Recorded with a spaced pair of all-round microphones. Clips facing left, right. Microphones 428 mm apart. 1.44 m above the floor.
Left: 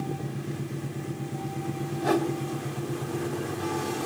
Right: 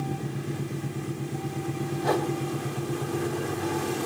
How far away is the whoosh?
About 3 m.